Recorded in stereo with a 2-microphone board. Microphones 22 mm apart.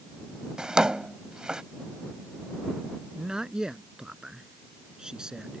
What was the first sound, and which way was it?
A drawer, 40° right (ahead or behind).